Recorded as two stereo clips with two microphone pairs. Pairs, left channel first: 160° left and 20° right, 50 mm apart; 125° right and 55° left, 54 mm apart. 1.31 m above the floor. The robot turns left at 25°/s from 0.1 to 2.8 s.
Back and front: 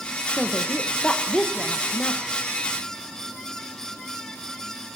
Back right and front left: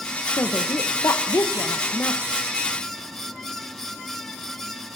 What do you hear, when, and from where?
0.3 s a woman speaking: 110° right, 0.9 m; by 2.2 s 160° right, 0.9 m